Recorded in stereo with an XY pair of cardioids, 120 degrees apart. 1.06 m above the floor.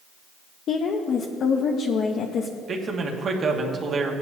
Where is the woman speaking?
55° left, 0.7 m.